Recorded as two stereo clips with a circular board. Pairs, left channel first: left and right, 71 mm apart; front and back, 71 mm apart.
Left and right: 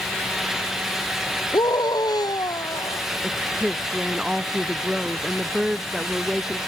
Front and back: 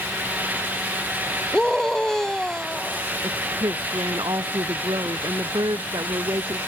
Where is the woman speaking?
175° right.